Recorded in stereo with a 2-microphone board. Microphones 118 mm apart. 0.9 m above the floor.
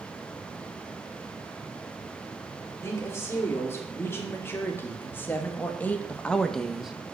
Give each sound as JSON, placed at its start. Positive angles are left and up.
{"t": 2.8, "sound": "a woman speaking", "side_deg": 20, "distance_m": 3.0}